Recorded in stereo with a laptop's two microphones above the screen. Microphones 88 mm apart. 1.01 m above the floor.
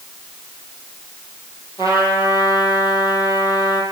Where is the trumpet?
35° right (ahead or behind), 5.5 m.